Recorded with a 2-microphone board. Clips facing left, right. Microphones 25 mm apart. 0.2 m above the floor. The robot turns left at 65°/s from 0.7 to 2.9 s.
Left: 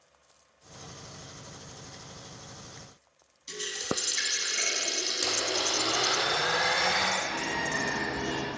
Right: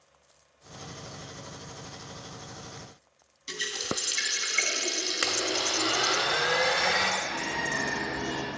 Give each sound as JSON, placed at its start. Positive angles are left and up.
{"t": 3.5, "sound": "a running tap", "side_deg": -35, "distance_m": 0.9}
{"t": 5.2, "sound": "a blender", "side_deg": -60, "distance_m": 1.1}
{"t": 7.2, "sound": "a bird", "side_deg": 45, "distance_m": 2.0}